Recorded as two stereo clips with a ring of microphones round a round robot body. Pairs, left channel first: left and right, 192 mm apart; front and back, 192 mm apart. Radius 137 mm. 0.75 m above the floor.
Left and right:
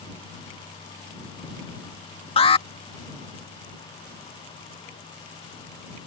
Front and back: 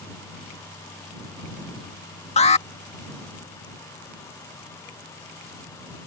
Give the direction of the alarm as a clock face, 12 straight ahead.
11 o'clock.